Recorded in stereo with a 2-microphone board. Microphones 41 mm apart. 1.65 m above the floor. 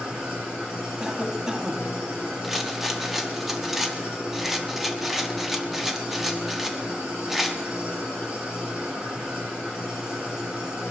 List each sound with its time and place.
0.0 s an engine running: 20° right (ahead or behind), 9 m
1.0 s a cough: 20° right (ahead or behind), 1.6 m
2.4 s a rattle: 5° right (ahead or behind), 1.3 m